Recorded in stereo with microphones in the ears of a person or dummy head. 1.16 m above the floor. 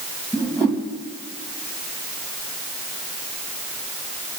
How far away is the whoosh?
About 3.5 m.